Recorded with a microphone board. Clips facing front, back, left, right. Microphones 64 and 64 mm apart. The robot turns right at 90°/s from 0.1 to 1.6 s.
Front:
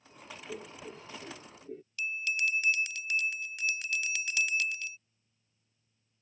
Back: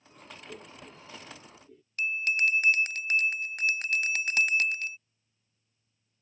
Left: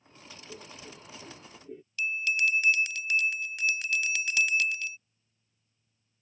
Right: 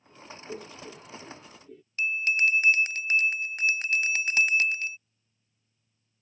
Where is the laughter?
70° right; by 1.8 s 25° left.